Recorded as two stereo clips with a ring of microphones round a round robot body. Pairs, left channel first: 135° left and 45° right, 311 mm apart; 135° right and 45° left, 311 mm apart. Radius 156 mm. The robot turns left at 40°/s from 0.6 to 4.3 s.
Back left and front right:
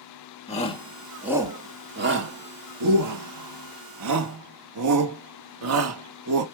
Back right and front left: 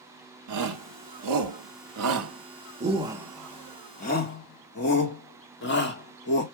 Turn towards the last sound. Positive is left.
turn(degrees=-80)